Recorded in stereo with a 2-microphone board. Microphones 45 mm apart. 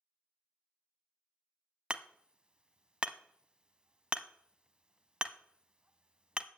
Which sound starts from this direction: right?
Hammering, at 1.9 s.